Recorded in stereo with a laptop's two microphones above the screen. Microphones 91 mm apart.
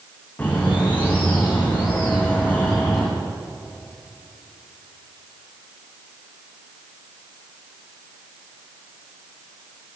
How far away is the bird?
About 9.5 m.